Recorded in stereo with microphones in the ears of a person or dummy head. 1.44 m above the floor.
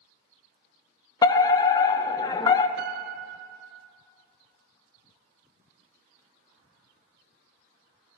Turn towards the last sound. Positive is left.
turn(degrees=-60)  # may be behind; listen again after turning